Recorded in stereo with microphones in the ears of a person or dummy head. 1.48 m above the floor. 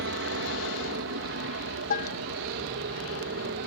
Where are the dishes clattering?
50° left (ahead or behind).